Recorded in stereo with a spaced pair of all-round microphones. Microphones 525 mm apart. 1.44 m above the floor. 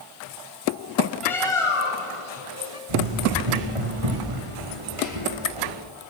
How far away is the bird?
About 2.5 m.